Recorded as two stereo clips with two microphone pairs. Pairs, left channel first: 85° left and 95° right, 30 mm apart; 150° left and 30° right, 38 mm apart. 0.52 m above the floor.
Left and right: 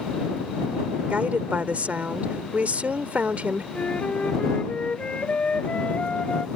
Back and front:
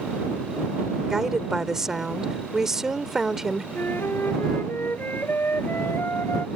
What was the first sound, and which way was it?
A woman speaking, 105° right.